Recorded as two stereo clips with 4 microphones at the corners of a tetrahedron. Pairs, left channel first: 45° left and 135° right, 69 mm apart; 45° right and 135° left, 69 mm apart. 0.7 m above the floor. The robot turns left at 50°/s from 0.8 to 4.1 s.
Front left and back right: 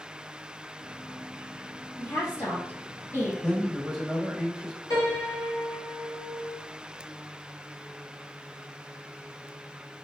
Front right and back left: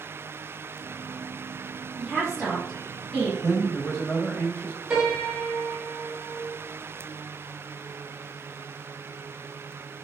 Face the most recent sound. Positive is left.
turn(degrees=55)